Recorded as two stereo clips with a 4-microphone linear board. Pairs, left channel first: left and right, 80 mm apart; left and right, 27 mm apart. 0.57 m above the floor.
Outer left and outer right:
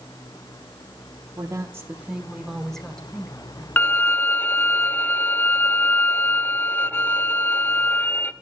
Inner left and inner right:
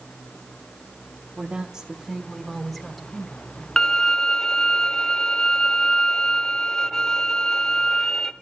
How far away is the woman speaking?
About 1.0 m.